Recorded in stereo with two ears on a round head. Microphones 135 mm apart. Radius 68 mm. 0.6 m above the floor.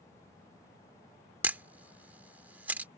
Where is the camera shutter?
10° right (ahead or behind).